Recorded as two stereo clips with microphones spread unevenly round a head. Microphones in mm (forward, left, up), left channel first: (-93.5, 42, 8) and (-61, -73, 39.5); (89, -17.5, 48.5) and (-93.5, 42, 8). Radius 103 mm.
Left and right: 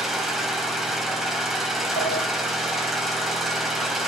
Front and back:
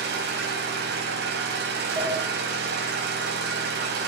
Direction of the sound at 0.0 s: 160° right.